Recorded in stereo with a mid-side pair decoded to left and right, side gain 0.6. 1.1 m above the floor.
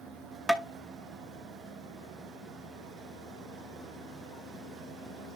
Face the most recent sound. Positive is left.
turn(degrees=0)